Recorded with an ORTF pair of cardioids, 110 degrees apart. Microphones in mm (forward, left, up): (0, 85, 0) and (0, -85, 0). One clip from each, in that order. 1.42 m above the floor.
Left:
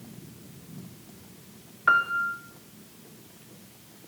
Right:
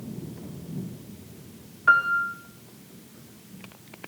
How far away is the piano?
About 2 m.